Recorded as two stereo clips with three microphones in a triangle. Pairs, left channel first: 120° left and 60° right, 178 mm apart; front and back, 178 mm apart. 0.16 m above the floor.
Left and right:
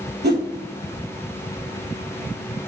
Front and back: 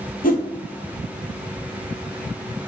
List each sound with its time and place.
0.2 s a whoosh: 40° right, 0.8 m